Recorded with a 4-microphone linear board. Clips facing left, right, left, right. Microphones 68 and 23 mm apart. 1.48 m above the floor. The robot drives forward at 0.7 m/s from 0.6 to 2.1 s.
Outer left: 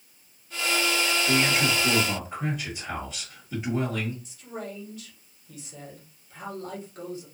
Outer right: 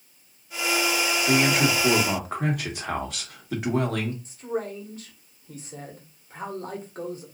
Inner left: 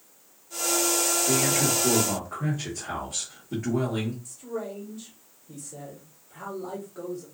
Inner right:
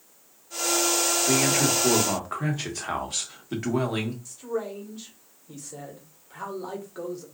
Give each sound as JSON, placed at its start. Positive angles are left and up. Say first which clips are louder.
{"t": 1.3, "sound": "a man speaking", "louder": "outer right 4 dB, inner right 3 dB", "side_deg": -55, "distance_m": 1.8}
{"t": 4.2, "sound": "a man speaking", "louder": "outer right 7 dB, inner right 3 dB", "side_deg": -40, "distance_m": 1.4}